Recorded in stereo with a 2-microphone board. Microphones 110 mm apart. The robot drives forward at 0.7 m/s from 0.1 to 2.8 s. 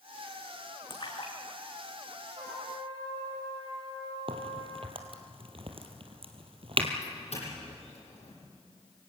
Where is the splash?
45° left (ahead or behind), 4.5 m; by 2.8 s 60° left (ahead or behind), 3.5 m.